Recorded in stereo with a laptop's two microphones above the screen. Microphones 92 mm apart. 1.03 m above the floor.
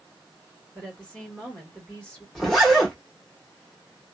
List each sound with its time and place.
0.8 s a woman speaking: 15° left (ahead or behind), 1.3 m
2.4 s a zipper: 5° left (ahead or behind), 1.0 m